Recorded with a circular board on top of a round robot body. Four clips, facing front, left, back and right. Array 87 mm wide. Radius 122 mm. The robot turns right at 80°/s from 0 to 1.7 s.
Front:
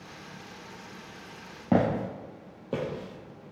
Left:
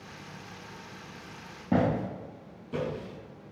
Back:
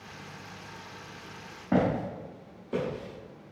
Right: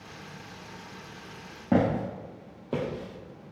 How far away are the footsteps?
About 0.8 m.